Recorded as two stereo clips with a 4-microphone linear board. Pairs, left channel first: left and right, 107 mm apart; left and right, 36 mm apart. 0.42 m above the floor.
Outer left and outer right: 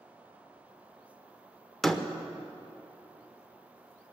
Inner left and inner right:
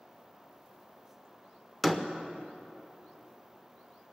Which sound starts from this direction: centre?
A door slam, at 1.8 s.